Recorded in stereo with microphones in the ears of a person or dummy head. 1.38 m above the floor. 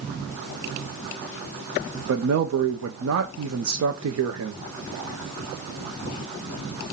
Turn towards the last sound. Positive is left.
turn(degrees=-80)